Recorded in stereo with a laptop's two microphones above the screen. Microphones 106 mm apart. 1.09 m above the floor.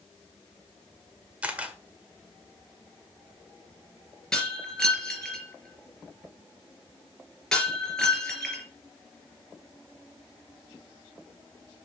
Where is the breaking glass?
5° left (ahead or behind), 3.5 m.